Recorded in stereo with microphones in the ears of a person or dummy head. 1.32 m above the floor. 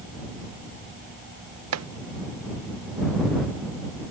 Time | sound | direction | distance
1.7 | chopping | 85° right | ?